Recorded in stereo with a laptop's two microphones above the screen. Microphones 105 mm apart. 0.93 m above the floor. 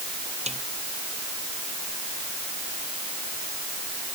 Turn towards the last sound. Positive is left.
turn(degrees=-90)